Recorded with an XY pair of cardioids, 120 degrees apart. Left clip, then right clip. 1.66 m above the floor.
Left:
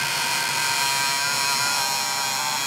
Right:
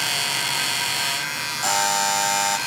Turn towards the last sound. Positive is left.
turn(degrees=-65)